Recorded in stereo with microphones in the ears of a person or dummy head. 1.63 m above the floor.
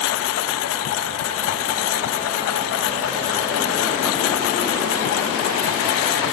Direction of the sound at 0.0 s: 80° left.